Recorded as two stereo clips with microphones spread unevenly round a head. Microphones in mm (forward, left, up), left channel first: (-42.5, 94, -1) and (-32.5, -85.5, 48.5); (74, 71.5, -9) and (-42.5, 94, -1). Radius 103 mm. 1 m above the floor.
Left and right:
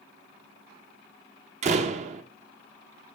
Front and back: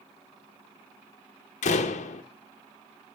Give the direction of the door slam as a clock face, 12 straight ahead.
1 o'clock.